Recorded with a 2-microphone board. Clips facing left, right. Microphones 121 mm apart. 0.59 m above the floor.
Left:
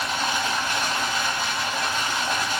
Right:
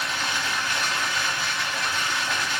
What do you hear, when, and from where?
0.0 s running water: 40° left (ahead or behind), 1.0 m